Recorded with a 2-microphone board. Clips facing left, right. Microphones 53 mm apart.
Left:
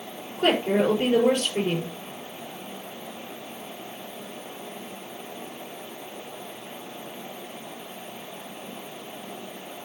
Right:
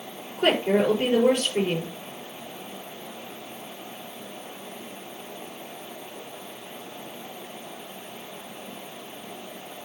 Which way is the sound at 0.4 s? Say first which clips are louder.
Even; 15° right (ahead or behind).